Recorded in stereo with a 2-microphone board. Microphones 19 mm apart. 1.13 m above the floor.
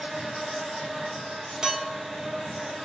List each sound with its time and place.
0.0 s an insect: 60° right (ahead or behind), 1.3 m
1.6 s a clink: 45° right (ahead or behind), 1.0 m